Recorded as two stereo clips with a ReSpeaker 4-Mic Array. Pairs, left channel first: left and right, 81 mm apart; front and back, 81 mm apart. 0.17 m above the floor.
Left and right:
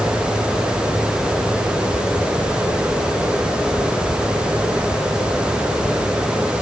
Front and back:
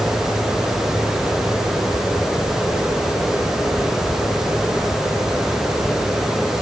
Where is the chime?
I don't hear a chime.